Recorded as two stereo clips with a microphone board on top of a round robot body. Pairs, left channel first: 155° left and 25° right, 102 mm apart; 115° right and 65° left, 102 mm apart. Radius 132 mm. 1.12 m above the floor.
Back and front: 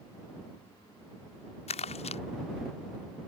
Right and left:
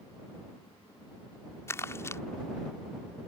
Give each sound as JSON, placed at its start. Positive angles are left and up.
{"t": 1.7, "sound": "crumpling", "azimuth_deg": 180}